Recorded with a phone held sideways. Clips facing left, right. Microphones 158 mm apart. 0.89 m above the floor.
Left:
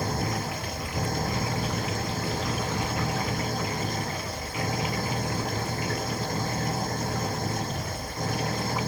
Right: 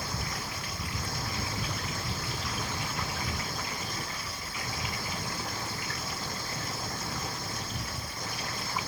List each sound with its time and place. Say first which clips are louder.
0.0 s an engine running: left 8 dB; 50° left (ahead or behind)